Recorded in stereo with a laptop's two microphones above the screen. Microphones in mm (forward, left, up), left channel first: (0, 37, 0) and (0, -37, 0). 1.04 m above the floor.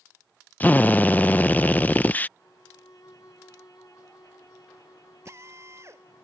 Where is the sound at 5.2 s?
40° right (ahead or behind).